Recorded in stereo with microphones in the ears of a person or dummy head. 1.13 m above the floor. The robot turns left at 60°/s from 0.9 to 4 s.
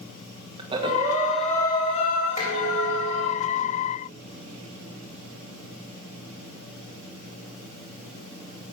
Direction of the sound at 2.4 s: 140° left.